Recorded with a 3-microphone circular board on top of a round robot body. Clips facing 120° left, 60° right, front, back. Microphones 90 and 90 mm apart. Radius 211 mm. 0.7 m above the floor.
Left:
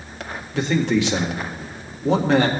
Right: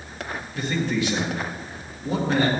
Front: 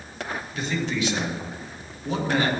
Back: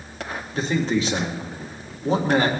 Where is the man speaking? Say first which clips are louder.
Left 6 dB, back 6 dB; 125° left, 2.5 m.